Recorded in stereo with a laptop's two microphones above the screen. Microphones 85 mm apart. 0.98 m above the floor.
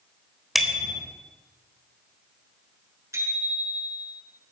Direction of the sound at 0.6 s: Centre (ahead or behind).